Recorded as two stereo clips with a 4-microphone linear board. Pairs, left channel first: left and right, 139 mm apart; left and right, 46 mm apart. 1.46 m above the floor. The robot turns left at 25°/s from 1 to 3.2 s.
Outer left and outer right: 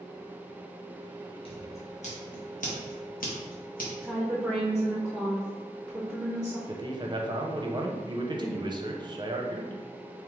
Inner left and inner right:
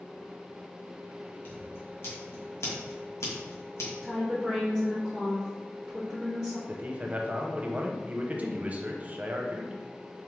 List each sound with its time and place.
1.4 s scissors: 45° left (ahead or behind), 1.2 m; by 3.9 s 85° left, 1.2 m
4.0 s a woman speaking: 5° right (ahead or behind), 0.7 m
6.7 s a man speaking: 30° right (ahead or behind), 0.6 m